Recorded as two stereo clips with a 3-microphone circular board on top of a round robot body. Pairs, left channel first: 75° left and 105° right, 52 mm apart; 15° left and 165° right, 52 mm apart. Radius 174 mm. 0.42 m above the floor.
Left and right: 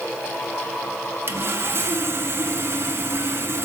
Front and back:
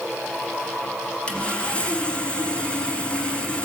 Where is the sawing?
55° right, 1.7 m.